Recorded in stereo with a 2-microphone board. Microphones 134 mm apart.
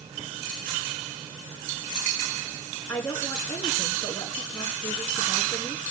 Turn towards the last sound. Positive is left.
turn(degrees=20)  # may be behind; listen again after turning